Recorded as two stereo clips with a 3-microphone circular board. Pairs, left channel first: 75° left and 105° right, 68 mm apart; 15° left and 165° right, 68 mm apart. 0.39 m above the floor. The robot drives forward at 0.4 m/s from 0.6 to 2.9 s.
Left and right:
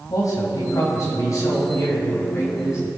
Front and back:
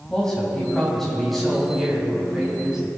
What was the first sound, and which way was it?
A man speaking, 95° left.